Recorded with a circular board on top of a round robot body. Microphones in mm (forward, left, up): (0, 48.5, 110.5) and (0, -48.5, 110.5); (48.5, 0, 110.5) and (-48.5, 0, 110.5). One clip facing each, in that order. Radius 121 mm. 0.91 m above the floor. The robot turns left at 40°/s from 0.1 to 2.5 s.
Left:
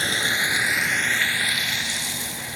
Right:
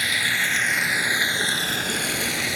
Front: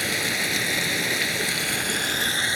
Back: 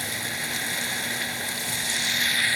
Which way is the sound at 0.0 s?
30° left.